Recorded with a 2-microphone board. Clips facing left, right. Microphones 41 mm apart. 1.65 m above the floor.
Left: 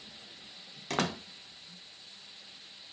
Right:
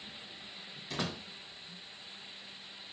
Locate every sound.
0.9 s a door slam: 70° left (ahead or behind), 1.5 m